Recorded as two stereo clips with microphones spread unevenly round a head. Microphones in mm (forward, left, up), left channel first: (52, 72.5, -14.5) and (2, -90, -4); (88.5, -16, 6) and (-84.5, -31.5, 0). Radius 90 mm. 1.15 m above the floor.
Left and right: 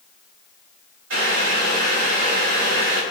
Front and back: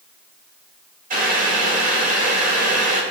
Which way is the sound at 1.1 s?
130° right.